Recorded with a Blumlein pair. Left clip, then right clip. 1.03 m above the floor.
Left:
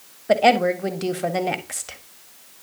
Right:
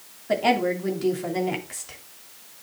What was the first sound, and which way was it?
A woman speaking, 40° left.